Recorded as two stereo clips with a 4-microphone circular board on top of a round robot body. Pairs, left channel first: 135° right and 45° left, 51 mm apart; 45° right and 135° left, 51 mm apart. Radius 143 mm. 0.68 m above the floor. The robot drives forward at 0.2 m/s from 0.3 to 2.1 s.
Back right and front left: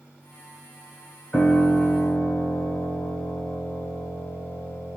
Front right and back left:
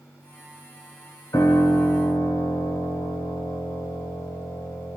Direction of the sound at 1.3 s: 65° right.